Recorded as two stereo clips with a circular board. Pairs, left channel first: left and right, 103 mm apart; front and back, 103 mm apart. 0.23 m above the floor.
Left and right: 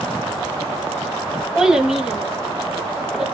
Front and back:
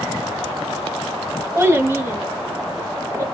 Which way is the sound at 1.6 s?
170° right.